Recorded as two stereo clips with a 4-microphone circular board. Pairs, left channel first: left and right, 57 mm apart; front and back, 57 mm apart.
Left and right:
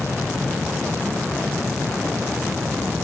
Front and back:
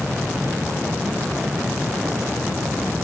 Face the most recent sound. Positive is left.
No sound to turn to.